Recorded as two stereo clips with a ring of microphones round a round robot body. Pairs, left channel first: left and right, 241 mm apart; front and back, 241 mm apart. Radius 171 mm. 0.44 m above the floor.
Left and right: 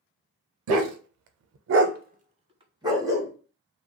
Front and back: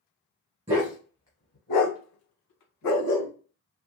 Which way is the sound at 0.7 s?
105° right.